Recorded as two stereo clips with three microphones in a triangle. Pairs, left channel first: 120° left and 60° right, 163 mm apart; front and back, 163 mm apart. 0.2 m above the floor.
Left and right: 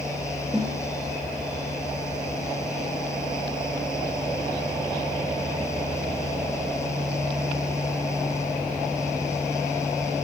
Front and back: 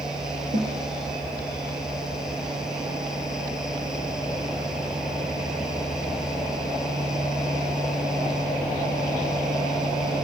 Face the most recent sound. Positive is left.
turn(degrees=-150)